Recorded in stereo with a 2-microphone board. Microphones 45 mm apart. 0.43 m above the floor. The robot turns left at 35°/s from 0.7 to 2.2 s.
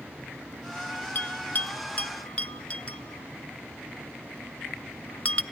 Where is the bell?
45° left (ahead or behind), 0.7 m; by 5.4 s 25° left (ahead or behind), 0.7 m.